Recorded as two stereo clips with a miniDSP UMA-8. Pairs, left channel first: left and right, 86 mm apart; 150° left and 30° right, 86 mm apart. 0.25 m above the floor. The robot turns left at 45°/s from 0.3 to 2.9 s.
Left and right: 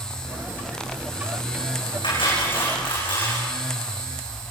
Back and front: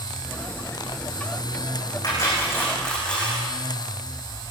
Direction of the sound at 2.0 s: 110° left.